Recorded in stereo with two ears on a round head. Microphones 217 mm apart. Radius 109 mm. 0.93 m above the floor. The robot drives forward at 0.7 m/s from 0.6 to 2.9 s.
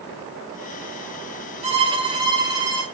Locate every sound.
1.6 s a violin: 25° right (ahead or behind), 1.3 m; by 2.8 s 15° right (ahead or behind), 2 m